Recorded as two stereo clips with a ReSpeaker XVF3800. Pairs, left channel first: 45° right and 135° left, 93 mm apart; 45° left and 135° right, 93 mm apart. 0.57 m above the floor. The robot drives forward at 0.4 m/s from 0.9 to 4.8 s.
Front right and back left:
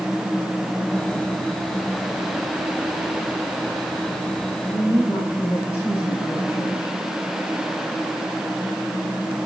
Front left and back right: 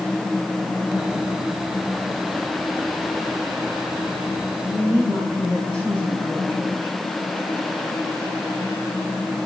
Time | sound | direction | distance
4.7 | a woman speaking | 95° right | 2.5 m